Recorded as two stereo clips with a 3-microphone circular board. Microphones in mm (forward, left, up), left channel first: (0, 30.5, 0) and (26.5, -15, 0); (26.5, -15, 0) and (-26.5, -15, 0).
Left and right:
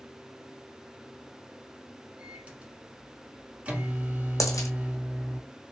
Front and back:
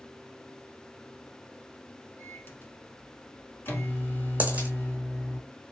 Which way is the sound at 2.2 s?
10° right.